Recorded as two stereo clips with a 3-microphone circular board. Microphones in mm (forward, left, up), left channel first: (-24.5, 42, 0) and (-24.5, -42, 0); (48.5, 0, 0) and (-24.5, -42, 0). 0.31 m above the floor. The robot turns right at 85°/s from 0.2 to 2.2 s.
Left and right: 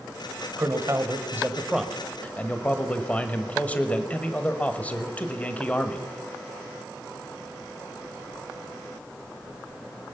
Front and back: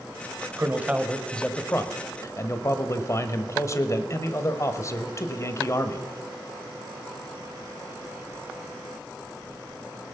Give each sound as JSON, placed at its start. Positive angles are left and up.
{"t": 0.6, "sound": "a man speaking", "azimuth_deg": -110, "distance_m": 1.2}